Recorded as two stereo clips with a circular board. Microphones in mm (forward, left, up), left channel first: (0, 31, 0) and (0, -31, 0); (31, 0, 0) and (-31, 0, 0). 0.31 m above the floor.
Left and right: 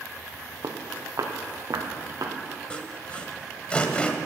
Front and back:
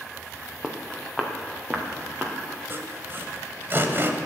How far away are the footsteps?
About 2 m.